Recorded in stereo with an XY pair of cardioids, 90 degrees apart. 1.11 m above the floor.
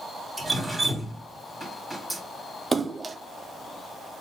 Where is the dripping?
15° right, 2 m.